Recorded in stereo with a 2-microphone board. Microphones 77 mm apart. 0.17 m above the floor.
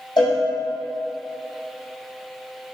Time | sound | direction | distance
0.2 | a cowbell | 75° left (ahead or behind) | 1.8 m